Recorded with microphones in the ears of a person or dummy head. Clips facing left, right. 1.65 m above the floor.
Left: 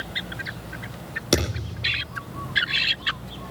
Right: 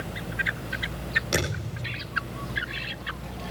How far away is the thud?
About 9 m.